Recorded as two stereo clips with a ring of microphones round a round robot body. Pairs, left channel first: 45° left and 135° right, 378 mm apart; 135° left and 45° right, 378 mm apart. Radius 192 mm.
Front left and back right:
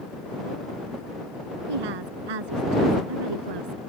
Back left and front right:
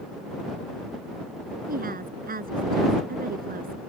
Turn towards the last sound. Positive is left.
turn(degrees=-115)